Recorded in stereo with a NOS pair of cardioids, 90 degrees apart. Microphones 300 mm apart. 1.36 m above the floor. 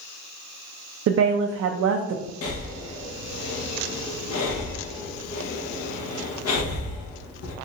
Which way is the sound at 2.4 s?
55° left.